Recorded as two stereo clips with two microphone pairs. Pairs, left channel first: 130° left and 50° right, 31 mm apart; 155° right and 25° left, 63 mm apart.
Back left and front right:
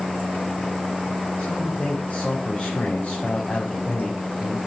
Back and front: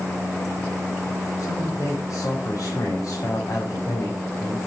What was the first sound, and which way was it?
A man speaking, 175° left.